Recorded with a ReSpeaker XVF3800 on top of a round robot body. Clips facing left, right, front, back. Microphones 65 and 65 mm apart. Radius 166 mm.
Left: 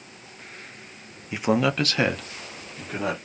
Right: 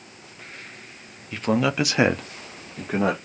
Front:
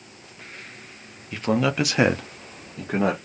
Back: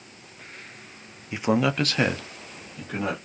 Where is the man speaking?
140° left, 0.7 m; by 3.2 s 45° right, 1.4 m.